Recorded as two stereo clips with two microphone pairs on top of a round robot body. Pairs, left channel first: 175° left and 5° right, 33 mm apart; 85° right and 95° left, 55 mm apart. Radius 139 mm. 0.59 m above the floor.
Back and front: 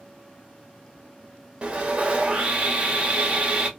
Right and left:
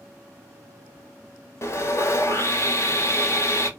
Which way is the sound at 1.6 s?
60° right.